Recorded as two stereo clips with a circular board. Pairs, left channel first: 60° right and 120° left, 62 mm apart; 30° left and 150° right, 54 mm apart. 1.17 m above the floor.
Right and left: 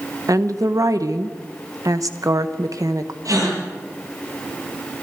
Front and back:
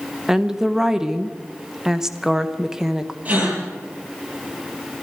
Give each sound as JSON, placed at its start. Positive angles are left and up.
{"t": 0.3, "sound": "a woman speaking", "azimuth_deg": 125, "distance_m": 1.1}
{"t": 3.2, "sound": "a gasp", "azimuth_deg": 145, "distance_m": 9.5}